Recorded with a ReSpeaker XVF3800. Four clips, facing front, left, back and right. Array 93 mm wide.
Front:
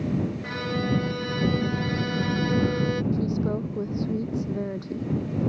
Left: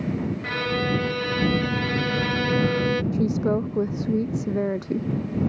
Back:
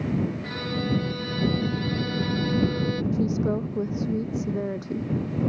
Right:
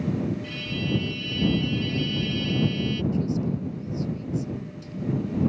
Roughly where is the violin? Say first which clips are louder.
Left 6 dB, front 1 dB; left.